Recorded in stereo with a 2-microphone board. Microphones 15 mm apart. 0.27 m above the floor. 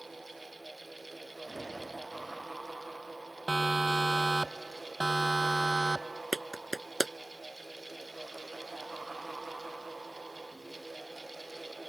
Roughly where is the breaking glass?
I don't hear breaking glass.